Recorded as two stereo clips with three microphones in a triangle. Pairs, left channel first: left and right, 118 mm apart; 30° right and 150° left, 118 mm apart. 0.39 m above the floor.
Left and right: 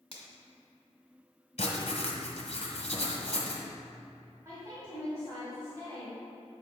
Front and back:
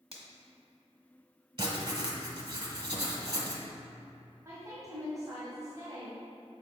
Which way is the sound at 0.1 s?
125° left.